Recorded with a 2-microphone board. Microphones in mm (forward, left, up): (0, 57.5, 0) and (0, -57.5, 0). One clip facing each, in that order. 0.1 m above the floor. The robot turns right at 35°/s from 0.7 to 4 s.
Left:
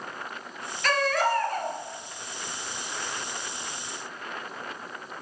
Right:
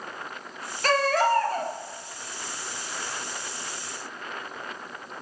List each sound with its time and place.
0.8 s a baby crying: 90° right, 0.7 m; by 1.7 s 60° right, 0.7 m